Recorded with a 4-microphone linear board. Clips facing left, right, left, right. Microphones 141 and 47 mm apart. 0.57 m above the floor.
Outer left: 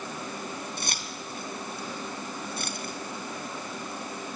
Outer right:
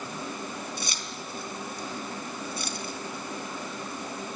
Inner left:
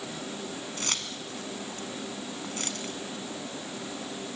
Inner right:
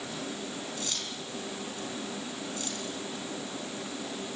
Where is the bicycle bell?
No bicycle bell in this recording.